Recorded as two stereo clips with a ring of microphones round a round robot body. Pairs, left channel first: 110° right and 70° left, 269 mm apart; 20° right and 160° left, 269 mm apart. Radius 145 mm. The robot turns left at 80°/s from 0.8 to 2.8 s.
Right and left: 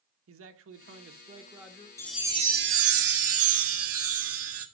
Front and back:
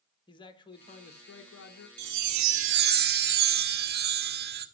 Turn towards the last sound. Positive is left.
turn(degrees=105)